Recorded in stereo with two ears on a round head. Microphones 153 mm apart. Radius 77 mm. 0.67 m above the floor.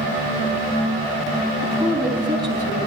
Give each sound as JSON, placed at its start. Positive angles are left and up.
{"t": 1.6, "sound": "a woman speaking", "side_deg": -25, "distance_m": 5.5}